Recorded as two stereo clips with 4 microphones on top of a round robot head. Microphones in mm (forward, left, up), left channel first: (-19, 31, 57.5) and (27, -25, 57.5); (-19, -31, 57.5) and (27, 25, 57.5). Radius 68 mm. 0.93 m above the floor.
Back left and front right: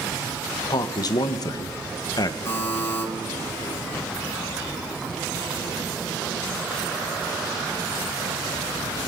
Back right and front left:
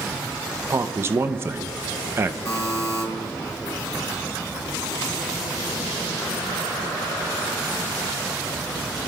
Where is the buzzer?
Straight behind, 3.5 m.